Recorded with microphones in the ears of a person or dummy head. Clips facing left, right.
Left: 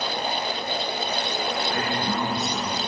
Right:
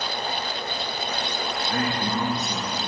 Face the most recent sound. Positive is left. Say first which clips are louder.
# even
turn(degrees=-75)  # may be behind; listen again after turning